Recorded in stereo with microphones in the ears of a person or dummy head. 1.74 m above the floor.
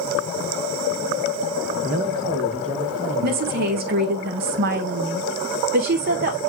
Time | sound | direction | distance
1.8 | a man speaking | 40° right (ahead or behind) | 2 m
3.2 | a woman speaking | 50° right (ahead or behind) | 1.3 m